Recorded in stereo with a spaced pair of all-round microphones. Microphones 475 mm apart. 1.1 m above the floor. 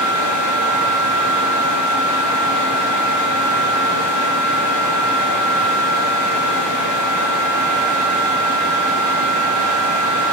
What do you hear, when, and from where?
0.0 s a fan: 40° right (ahead or behind), 1.3 m